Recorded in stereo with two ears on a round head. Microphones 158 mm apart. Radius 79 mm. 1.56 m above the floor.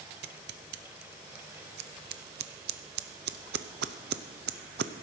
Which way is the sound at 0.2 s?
65° right (ahead or behind).